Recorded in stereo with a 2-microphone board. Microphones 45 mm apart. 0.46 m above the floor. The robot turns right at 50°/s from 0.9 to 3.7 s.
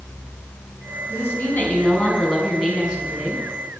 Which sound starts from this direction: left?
A woman speaking, at 1.1 s.